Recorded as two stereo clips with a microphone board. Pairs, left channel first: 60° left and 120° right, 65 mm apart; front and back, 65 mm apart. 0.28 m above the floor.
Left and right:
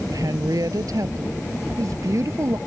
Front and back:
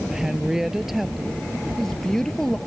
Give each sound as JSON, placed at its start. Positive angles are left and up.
{"t": 0.1, "sound": "a woman speaking", "azimuth_deg": -100}